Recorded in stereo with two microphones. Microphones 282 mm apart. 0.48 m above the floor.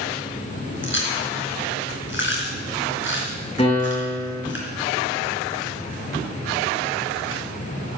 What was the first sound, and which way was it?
Chewing, 45° left (ahead or behind).